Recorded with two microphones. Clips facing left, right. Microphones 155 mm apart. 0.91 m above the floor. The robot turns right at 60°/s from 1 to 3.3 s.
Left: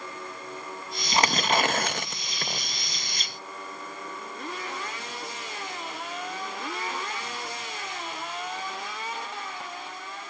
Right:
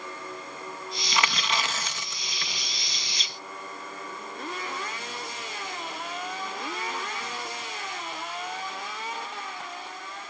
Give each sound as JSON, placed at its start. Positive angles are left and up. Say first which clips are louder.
{"t": 1.1, "sound": "tearing paper", "louder": "left 5 dB", "azimuth_deg": 40}